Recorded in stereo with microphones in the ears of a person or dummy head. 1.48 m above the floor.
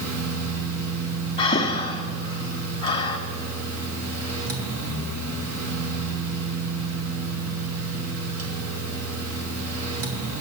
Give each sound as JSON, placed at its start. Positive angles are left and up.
{"t": 0.0, "sound": "a fan", "side_deg": -90, "distance_m": 2.0}
{"t": 1.4, "sound": "breathing", "side_deg": 20, "distance_m": 0.8}